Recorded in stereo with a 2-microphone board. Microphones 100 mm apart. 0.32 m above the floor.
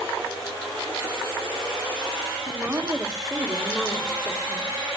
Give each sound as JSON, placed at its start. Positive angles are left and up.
{"t": 2.5, "sound": "a woman speaking", "side_deg": -20, "distance_m": 1.4}